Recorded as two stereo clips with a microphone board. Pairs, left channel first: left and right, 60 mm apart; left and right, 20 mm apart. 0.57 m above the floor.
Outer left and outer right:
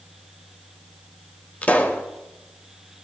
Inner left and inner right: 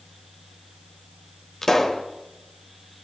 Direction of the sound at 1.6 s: 25° left (ahead or behind).